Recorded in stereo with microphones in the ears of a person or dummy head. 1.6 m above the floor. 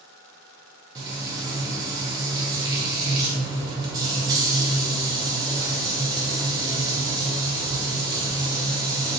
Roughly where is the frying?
Right.